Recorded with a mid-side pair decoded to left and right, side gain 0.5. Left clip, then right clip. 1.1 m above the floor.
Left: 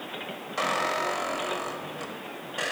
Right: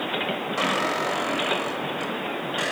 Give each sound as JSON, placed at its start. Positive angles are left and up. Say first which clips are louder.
{"t": 0.6, "sound": "a squeak", "louder": "right 1 dB", "azimuth_deg": -5, "distance_m": 3.5}